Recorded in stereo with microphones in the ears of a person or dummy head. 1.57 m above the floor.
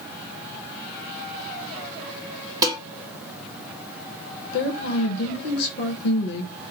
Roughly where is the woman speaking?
Left.